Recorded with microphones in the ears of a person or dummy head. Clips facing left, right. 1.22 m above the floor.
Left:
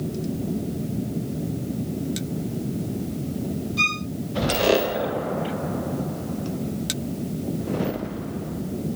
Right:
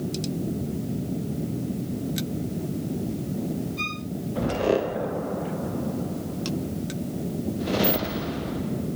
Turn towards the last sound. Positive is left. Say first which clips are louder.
# left 3 dB
turn(degrees=60)  # may be behind; listen again after turning